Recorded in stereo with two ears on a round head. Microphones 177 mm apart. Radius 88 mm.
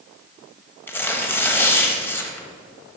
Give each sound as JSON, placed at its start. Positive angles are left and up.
{"t": 0.9, "sound": "tearing paper", "side_deg": 10, "distance_m": 0.9}